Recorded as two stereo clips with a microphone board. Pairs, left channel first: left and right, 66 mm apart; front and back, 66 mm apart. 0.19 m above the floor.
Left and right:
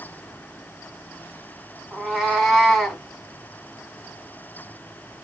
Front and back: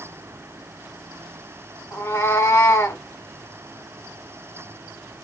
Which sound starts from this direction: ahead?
A cat meowing, at 1.9 s.